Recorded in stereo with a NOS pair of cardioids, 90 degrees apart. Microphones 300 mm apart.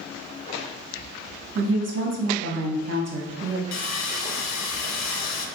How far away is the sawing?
About 0.7 m.